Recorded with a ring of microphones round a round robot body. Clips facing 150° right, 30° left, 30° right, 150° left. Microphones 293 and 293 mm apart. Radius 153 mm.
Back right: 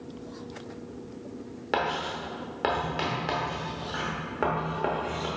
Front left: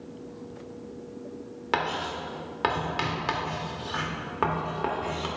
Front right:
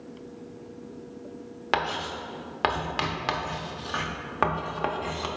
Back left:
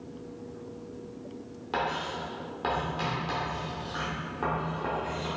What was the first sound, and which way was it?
Writing, 50° right.